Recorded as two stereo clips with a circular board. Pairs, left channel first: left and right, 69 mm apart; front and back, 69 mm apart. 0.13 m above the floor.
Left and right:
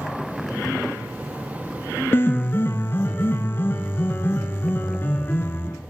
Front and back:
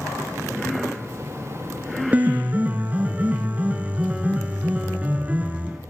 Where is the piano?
125° left, 0.7 m.